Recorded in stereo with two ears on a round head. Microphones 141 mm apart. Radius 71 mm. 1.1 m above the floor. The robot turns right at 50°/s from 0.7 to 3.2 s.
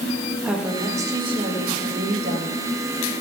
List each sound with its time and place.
0.4 s a woman speaking: 175° right, 1.6 m; by 3.1 s 50° right, 1.6 m